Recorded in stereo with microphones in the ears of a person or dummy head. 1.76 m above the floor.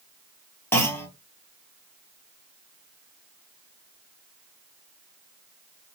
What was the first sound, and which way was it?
A clunk, 5° left (ahead or behind).